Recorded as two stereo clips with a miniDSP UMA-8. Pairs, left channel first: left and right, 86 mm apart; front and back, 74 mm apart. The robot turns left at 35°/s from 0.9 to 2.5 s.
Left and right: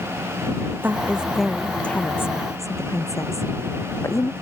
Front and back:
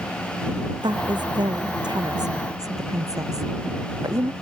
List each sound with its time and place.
0.8 s a woman speaking: 160° right; by 4.3 s 145° left